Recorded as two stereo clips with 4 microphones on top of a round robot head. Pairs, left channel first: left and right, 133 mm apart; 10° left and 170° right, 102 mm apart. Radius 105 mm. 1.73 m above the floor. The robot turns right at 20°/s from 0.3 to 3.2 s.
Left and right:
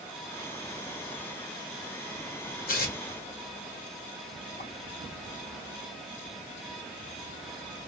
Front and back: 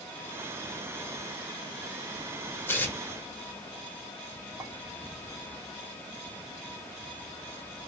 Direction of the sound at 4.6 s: 130° left.